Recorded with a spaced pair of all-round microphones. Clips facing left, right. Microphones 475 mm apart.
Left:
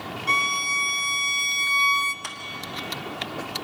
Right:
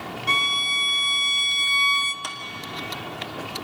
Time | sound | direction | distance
0.3 | a violin | 10° right (ahead or behind) | 0.6 m
2.2 | a clap | 55° right (ahead or behind) | 1.6 m